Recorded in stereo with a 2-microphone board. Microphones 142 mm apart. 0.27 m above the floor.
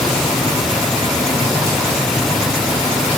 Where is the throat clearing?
I don't hear throat clearing.